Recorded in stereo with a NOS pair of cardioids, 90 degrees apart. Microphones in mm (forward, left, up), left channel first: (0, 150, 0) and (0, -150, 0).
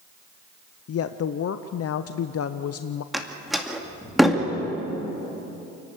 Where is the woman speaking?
50° left, 0.8 m.